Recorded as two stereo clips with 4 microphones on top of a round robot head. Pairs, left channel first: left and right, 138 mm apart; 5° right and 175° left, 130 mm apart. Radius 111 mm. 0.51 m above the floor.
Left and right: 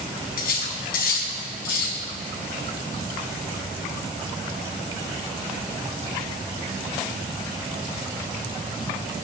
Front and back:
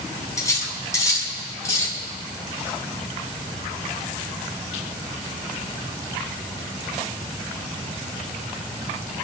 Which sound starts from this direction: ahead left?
Cutlery clinking, at 0.4 s.